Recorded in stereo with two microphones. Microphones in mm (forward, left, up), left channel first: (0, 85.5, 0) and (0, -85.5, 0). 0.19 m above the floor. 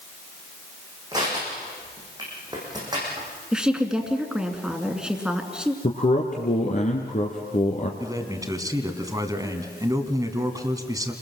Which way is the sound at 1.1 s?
25° right (ahead or behind).